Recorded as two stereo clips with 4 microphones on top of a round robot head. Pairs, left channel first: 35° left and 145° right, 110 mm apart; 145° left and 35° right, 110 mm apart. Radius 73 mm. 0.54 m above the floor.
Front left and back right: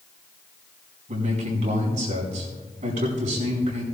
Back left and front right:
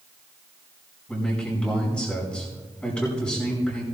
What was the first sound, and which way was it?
A man speaking, 135° right.